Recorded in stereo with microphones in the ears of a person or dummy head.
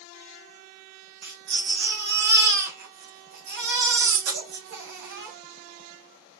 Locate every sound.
1.2 s a baby crying: 65° right (ahead or behind), 1.7 m